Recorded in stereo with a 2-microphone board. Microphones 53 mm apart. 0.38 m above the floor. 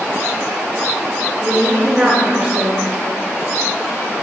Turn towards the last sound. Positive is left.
turn(degrees=-20)  # may be behind; listen again after turning